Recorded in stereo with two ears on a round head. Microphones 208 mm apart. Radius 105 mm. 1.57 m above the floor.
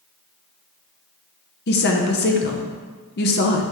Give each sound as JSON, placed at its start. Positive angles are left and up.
{"t": 1.7, "sound": "a woman speaking", "side_deg": 45, "distance_m": 0.8}